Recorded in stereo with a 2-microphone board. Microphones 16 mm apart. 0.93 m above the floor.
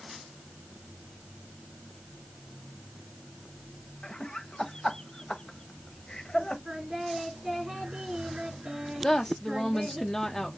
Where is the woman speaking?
25° left (ahead or behind), 0.5 m.